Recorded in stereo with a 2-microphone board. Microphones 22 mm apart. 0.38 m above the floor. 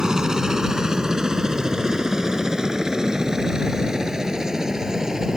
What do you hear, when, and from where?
0.0 s a helicopter: 25° right (ahead or behind)